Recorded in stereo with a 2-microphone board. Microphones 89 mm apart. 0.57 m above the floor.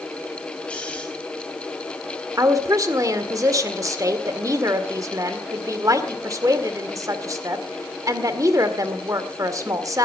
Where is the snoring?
15° left (ahead or behind), 4 m.